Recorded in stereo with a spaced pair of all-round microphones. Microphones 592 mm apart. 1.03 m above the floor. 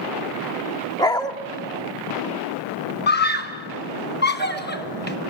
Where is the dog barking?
5° left (ahead or behind), 0.8 m.